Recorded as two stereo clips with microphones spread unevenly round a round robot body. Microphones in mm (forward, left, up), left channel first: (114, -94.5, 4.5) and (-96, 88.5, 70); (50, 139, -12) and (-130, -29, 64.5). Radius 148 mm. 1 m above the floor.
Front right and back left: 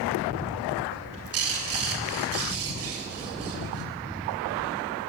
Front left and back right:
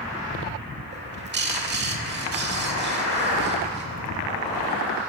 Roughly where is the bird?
Behind.